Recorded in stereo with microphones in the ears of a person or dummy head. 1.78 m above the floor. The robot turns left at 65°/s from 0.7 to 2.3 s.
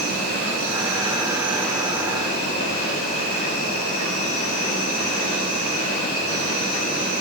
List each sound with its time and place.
0.0 s an insect: 120° right, 2.5 m; by 7.2 s 135° left, 2.5 m